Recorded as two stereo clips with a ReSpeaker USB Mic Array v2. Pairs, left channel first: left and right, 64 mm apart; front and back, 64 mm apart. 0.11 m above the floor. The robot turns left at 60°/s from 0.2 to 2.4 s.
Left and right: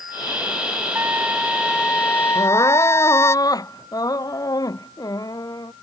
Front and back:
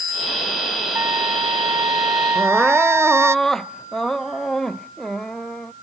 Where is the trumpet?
140° right; by 3.4 s 135° left.